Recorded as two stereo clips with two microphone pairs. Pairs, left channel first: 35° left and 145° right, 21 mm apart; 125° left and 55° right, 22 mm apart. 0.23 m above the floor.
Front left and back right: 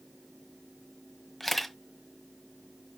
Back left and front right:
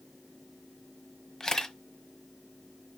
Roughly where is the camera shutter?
Left.